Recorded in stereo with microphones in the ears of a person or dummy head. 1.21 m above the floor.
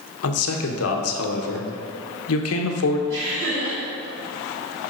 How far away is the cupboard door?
No cupboard door in this recording.